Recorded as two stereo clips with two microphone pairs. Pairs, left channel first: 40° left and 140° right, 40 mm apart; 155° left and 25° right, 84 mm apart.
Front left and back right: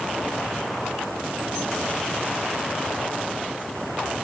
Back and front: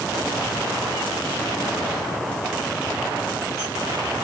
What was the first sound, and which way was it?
Only background noise.